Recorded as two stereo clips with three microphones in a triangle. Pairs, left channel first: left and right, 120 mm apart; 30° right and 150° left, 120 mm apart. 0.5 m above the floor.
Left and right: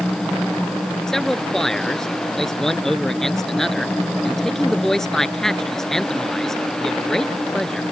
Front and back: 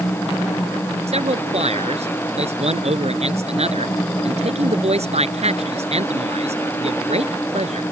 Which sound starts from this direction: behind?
A man speaking, at 1.1 s.